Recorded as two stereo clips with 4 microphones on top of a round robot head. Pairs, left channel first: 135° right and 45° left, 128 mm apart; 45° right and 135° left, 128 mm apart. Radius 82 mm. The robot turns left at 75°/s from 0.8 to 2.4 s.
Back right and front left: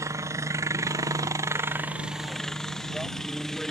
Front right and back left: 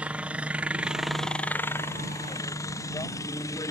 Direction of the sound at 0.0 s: 65° left.